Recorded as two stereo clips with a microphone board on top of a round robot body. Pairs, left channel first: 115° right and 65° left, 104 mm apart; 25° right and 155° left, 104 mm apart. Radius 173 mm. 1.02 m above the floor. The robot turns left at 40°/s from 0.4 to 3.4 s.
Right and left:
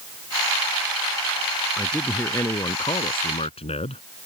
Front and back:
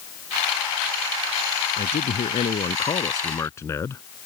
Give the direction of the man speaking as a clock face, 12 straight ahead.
1 o'clock.